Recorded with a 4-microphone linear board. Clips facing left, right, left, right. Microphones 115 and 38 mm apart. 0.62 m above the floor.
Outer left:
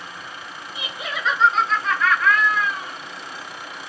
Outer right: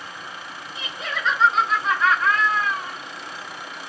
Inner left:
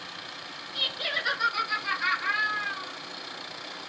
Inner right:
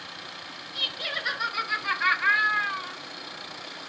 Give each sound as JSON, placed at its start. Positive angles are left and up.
{"t": 0.8, "sound": "laughter", "side_deg": 15, "distance_m": 3.0}